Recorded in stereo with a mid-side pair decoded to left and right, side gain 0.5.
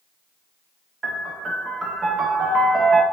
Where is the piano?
30° right, 0.9 m.